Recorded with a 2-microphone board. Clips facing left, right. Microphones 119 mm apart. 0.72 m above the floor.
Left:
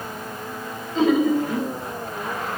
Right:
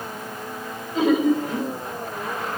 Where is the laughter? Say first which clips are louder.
Left 1 dB; 10° right (ahead or behind), 4 m.